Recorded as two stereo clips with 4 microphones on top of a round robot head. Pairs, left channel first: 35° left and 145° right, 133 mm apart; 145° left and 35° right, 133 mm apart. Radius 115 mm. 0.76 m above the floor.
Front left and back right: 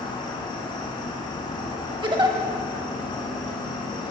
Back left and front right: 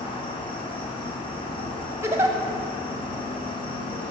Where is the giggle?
100° right, 1.2 m.